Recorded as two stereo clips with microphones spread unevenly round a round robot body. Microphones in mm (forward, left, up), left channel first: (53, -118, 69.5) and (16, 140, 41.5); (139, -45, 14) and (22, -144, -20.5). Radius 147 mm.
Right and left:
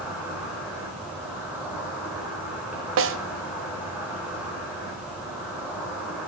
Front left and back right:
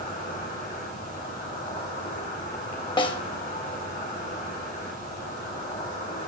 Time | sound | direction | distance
0.0 | an insect | 15° left | 7.5 m
3.0 | a snare drum | 70° left | 0.9 m